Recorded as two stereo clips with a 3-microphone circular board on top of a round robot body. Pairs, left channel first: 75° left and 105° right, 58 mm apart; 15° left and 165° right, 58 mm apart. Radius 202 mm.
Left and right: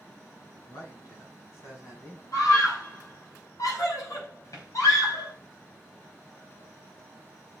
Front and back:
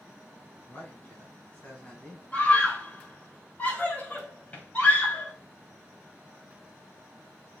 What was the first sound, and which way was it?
A man speaking, 75° left.